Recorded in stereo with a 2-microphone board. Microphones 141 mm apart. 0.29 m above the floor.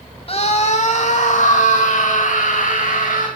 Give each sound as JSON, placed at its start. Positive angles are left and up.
{"t": 0.3, "sound": "a scream", "side_deg": 45, "distance_m": 1.6}